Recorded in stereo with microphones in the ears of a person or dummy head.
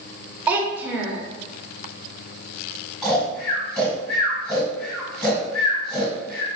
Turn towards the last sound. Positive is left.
turn(degrees=5)  # may be behind; listen again after turning